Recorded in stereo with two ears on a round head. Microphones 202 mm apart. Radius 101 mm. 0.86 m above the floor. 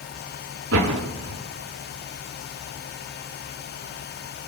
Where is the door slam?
65° right (ahead or behind), 6 m.